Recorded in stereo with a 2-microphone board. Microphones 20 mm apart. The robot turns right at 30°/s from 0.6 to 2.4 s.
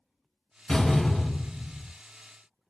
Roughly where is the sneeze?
I don't hear a sneeze.